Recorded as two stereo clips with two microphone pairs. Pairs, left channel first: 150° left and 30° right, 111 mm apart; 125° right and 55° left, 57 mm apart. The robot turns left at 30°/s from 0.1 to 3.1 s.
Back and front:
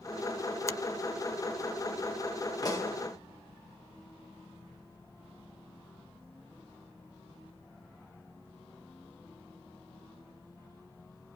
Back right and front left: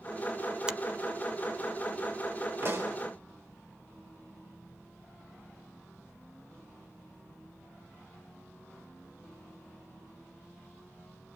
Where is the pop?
100° left, 3 m; by 3.0 s 90° left, 3 m.